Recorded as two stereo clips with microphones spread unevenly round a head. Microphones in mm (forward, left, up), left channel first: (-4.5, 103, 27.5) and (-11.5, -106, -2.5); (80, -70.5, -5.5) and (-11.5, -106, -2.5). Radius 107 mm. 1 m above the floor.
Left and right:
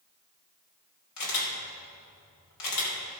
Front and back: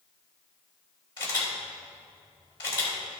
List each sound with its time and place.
1.2 s a camera shutter: 90° left, 3 m